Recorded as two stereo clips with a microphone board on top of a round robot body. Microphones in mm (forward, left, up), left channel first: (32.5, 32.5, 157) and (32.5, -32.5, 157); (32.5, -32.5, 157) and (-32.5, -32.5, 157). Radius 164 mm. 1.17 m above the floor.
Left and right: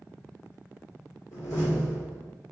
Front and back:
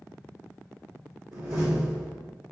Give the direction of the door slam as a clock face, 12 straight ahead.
8 o'clock.